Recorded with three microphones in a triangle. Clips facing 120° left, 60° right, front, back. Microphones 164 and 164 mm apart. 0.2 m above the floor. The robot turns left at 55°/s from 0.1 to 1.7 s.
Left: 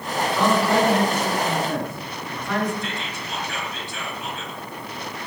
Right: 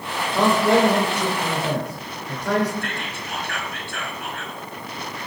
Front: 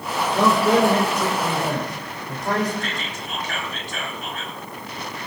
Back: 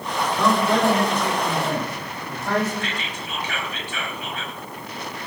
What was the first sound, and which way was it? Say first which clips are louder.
A man speaking: right 3 dB, front 3 dB; straight ahead.